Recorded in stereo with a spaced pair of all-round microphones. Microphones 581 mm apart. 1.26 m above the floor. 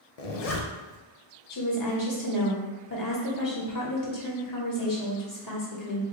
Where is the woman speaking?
35° left (ahead or behind), 1.1 m.